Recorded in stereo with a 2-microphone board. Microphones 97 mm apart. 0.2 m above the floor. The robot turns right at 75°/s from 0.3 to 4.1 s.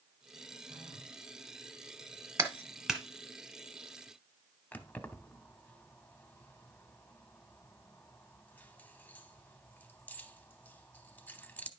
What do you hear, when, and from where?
0.7 s a phone buzzing: 45° right, 4.5 m; by 1.1 s 10° right, 4.5 m
2.4 s a clap: 30° right (ahead or behind), 1.1 m; by 3.0 s 5° left (ahead or behind), 1.1 m
4.7 s keys jangling: 20° left (ahead or behind), 0.7 m